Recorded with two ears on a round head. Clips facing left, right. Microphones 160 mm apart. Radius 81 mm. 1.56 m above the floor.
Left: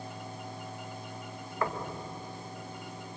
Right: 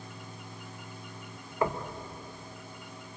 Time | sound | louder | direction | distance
1.6 | knocking | right 3 dB | 15° right (ahead or behind) | 1.7 m